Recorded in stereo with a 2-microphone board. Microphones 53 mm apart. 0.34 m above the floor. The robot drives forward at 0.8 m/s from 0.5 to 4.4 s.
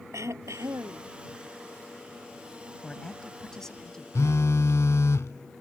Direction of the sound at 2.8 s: 15° left (ahead or behind).